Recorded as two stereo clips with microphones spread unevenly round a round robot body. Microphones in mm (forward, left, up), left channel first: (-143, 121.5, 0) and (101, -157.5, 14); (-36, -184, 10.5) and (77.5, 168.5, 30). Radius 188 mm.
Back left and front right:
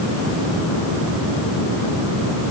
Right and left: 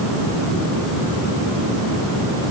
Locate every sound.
Only background noise.